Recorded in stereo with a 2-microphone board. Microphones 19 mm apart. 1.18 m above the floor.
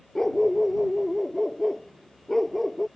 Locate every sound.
0.1 s a dog barking: 25° left (ahead or behind); by 2.9 s 10° left (ahead or behind)